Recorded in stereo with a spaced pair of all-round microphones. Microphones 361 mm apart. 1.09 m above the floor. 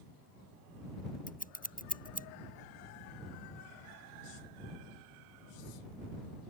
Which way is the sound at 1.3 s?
25° left (ahead or behind).